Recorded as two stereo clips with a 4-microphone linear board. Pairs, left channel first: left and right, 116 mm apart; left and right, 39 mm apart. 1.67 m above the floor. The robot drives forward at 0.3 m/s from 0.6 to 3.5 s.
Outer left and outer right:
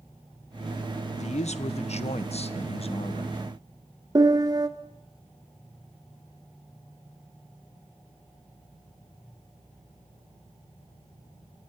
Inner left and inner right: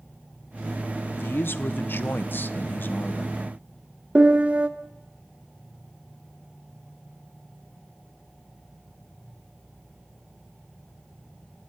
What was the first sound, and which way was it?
A man speaking, 75° left (ahead or behind).